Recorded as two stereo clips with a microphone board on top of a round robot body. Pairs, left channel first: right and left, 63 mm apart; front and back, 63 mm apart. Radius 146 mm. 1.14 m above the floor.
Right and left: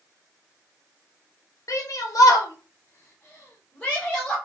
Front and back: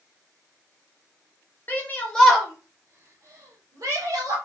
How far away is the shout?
About 0.7 m.